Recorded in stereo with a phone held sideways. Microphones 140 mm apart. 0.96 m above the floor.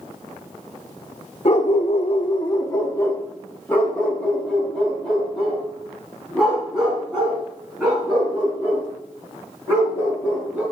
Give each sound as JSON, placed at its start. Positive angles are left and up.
{"t": 1.4, "sound": "a dog barking", "side_deg": 50, "distance_m": 0.7}